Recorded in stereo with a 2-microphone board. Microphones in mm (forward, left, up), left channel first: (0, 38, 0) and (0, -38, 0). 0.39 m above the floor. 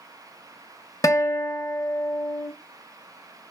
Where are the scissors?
No scissors in this recording.